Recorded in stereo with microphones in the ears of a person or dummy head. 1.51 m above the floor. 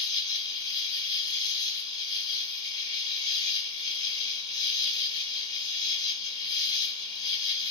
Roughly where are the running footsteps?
I don't hear running footsteps.